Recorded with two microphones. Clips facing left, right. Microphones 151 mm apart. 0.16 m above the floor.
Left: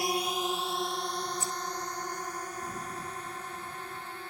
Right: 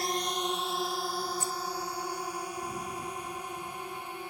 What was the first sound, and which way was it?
A drone, 10° left (ahead or behind).